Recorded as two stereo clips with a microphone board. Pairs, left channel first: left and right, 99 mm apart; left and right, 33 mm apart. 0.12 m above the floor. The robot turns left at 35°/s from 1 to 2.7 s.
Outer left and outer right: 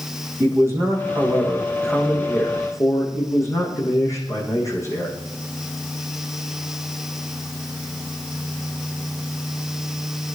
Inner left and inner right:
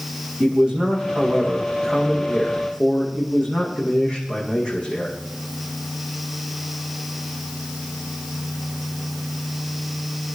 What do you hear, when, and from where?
0.4 s a man speaking: 155° right, 6 m; by 5.1 s 145° left, 6 m